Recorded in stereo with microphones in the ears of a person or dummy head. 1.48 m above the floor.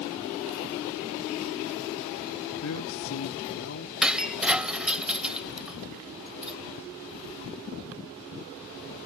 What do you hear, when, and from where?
2.6 s a man speaking: 80° left; by 3.9 s 75° left (ahead or behind)
4.0 s breaking glass: 5° right (ahead or behind)